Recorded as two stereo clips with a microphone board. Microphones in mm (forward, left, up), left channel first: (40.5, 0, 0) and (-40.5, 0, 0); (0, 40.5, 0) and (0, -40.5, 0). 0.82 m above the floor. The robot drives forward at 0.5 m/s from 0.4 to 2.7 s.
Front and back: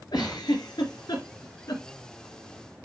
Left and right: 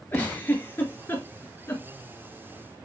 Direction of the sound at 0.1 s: 25° left.